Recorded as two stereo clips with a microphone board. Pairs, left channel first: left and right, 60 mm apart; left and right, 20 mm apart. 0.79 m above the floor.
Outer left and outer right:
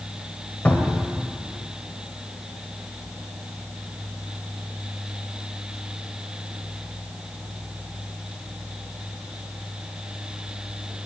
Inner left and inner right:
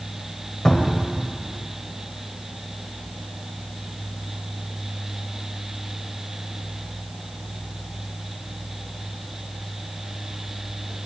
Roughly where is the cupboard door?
Left.